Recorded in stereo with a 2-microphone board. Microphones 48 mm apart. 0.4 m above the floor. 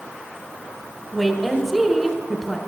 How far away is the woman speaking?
About 0.9 m.